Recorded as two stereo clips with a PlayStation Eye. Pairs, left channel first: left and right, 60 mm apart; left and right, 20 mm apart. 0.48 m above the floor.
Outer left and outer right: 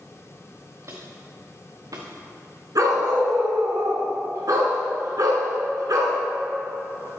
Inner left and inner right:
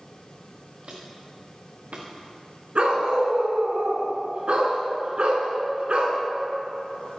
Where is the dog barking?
75° right (ahead or behind), 2.5 m.